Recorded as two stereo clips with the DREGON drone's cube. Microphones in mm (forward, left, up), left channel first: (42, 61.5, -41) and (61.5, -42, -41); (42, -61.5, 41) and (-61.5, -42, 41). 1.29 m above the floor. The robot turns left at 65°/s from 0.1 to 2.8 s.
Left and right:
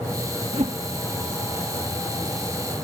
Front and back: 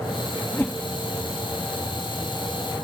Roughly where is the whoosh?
Right.